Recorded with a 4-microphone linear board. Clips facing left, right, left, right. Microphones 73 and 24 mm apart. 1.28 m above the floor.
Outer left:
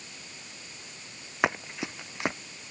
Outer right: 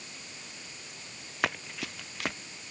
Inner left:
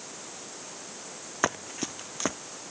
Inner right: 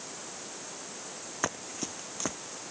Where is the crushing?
No crushing in this recording.